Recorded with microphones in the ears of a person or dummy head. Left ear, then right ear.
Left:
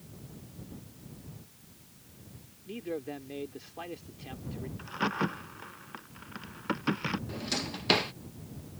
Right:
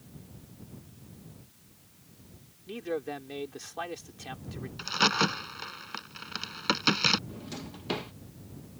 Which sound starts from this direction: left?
A drawer, at 7.3 s.